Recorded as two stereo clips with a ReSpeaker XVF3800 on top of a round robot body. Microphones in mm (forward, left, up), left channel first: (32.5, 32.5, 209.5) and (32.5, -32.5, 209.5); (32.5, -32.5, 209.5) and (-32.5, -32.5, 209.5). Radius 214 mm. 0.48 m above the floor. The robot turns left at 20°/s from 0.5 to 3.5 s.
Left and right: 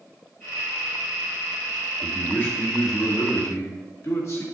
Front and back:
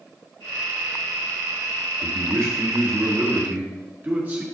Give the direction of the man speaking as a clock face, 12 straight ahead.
7 o'clock.